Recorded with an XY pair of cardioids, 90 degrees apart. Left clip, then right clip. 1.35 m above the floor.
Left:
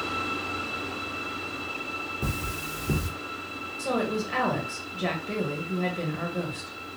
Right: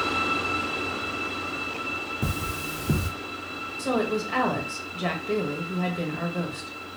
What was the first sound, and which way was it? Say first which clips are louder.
Cutlery clinking: right 2 dB; 25° right.